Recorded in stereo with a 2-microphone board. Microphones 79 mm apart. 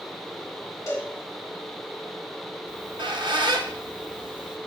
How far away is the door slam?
I don't hear a door slam.